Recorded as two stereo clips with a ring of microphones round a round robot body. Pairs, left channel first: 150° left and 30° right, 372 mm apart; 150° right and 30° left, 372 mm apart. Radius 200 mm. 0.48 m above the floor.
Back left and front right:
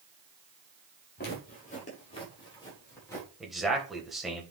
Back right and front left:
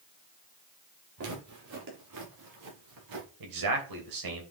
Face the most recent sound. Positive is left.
turn(degrees=60)